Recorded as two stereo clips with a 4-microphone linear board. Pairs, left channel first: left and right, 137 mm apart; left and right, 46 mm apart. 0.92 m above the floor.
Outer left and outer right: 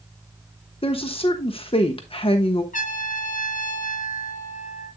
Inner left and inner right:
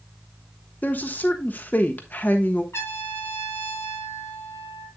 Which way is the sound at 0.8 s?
40° left (ahead or behind).